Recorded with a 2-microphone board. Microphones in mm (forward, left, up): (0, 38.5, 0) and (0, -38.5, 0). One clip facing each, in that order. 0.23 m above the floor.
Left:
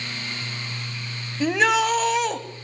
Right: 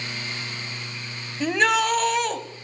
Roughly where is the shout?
Centre.